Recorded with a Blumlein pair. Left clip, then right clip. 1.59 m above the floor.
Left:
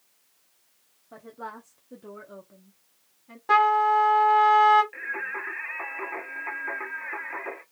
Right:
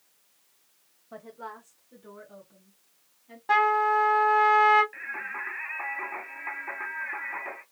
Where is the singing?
10° left, 0.9 m.